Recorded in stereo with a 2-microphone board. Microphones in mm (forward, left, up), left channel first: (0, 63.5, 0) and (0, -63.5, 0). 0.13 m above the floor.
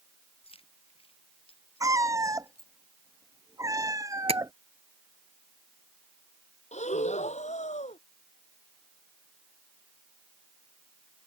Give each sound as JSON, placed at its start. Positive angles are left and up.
{"t": 0.4, "sound": "keys jangling", "side_deg": 50}
{"t": 1.8, "sound": "a cat meowing", "side_deg": -25}
{"t": 4.3, "sound": "tapping", "side_deg": -50}
{"t": 6.7, "sound": "breathing", "side_deg": 65}